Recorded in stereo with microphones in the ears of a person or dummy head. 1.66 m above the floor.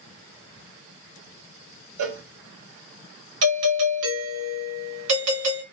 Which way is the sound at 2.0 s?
65° right (ahead or behind).